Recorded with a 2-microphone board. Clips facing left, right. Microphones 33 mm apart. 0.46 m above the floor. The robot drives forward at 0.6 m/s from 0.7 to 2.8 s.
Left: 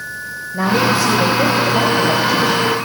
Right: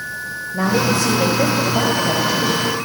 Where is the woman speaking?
15° left (ahead or behind), 2.5 m; by 2.9 s 10° left (ahead or behind), 3.5 m.